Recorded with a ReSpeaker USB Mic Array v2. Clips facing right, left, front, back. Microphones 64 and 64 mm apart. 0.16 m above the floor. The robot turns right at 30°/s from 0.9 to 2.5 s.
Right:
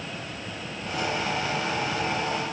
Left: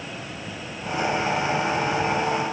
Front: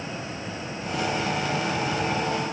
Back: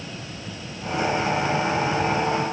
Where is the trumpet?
No trumpet in this recording.